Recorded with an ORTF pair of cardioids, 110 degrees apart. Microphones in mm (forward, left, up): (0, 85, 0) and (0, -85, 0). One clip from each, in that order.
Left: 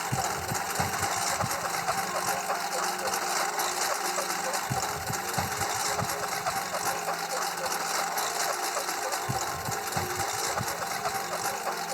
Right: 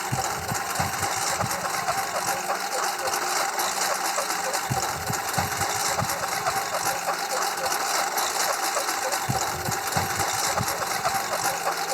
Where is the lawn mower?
15° right; by 11.9 s 35° right.